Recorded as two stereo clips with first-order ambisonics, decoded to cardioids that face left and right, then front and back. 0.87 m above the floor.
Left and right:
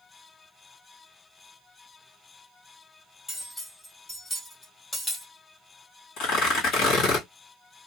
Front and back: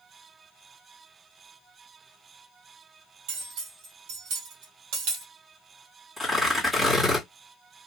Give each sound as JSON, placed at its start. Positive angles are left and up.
{"t": 3.3, "sound": "cutlery clinking", "azimuth_deg": 170, "distance_m": 1.9}
{"t": 6.2, "sound": "tearing paper", "azimuth_deg": 105, "distance_m": 1.7}